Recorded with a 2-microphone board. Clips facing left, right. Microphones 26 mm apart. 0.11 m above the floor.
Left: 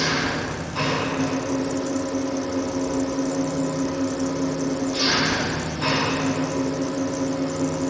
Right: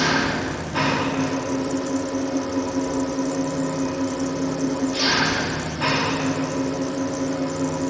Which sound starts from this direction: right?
An engine running, at 0.0 s.